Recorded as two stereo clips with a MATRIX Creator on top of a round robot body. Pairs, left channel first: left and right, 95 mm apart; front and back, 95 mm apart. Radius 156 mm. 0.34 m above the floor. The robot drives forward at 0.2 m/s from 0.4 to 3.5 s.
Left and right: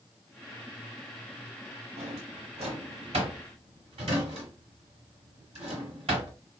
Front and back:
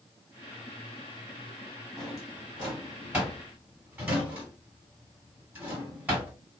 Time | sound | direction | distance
2.0 | a drawer | 95° right | 1.6 m